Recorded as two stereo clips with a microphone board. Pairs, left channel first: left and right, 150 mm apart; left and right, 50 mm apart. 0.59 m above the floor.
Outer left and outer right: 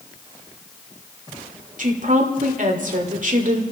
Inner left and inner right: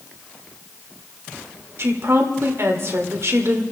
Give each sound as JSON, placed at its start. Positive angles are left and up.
{"t": 1.8, "sound": "a woman speaking", "side_deg": -60, "distance_m": 2.0}